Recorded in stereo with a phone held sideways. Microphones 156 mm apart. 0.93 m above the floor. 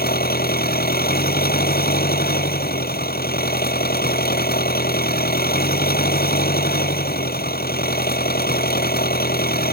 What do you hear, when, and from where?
0.0 s an engine running: 80° left